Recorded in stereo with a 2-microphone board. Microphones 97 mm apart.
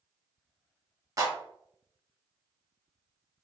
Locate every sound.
1.2 s a clap: 35° right (ahead or behind), 1.2 m